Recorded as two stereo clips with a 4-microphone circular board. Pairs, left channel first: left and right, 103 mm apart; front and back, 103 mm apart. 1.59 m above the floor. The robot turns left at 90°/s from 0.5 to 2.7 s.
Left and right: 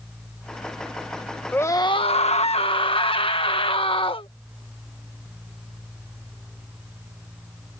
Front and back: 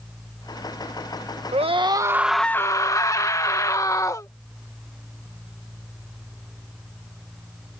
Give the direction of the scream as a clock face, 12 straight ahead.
7 o'clock.